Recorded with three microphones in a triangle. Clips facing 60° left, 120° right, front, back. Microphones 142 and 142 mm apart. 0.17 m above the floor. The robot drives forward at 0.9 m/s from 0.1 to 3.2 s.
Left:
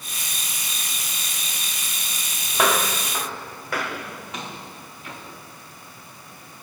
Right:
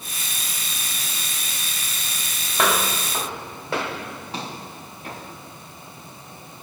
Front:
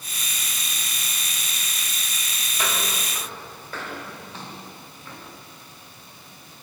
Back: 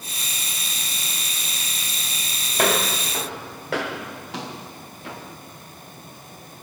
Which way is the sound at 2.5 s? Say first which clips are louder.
Left 1 dB, back 8 dB; 145° left.